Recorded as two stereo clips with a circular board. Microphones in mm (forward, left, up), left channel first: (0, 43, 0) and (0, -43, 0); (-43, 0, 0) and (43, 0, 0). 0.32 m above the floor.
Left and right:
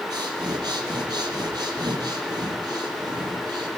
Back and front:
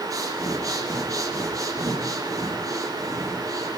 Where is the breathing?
50° right, 5.5 m.